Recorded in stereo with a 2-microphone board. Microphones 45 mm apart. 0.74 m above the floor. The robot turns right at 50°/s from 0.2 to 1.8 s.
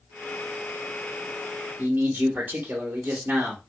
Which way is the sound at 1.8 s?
45° right (ahead or behind).